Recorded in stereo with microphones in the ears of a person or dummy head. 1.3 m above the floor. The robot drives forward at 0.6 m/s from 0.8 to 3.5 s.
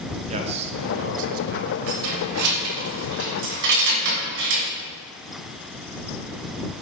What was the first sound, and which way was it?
A man speaking, 35° right (ahead or behind).